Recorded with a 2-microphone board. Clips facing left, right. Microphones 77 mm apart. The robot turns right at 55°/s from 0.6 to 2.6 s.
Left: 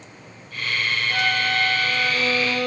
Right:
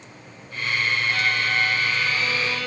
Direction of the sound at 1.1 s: 45° left.